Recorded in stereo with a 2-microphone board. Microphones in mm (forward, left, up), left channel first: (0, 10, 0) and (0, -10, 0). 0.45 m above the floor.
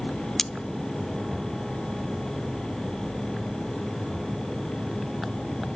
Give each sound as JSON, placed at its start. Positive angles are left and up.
{"t": 0.4, "sound": "cutlery clinking", "side_deg": 20, "distance_m": 0.5}